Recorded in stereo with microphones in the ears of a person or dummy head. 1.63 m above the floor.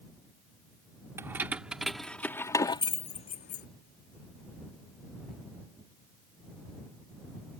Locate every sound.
1.2 s keys jangling: 15° right (ahead or behind); by 3.7 s 50° left (ahead or behind)